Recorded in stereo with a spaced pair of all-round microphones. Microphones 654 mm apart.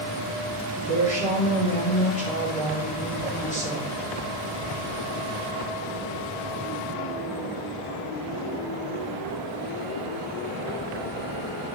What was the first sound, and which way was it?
A woman speaking, 10° left (ahead or behind).